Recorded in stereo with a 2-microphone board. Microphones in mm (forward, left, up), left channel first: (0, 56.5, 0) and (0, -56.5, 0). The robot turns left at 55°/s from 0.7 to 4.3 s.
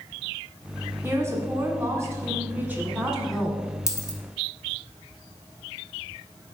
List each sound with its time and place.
1.0 s a woman speaking: 20° right (ahead or behind), 1.6 m; by 3.6 s 5° left (ahead or behind), 1.6 m
3.9 s a dropped coin: 30° left (ahead or behind), 1.1 m; by 4.2 s 45° left (ahead or behind), 1.1 m